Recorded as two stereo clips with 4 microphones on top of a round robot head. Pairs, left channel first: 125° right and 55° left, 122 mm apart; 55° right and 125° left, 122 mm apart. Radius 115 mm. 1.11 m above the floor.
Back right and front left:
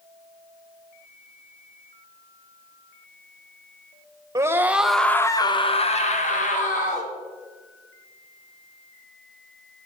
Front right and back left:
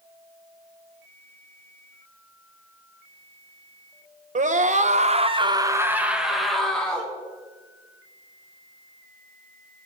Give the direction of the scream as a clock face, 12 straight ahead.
8 o'clock.